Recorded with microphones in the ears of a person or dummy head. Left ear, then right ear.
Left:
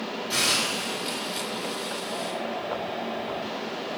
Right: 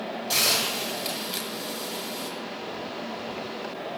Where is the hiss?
30° right (ahead or behind), 7.5 m.